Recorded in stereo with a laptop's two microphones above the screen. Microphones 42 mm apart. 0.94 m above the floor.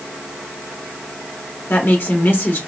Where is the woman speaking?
55° left (ahead or behind), 1.5 m.